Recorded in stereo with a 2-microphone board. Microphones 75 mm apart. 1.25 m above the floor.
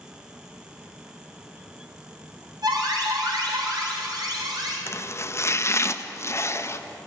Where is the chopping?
40° left (ahead or behind), 0.6 m.